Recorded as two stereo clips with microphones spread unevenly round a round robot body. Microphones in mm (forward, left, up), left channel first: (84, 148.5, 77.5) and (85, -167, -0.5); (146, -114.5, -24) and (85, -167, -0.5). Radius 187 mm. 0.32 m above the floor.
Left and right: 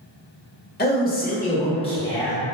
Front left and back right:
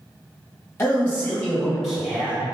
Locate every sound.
0.8 s a man speaking: 25° left, 1.5 m; by 2.5 s 105° right, 1.1 m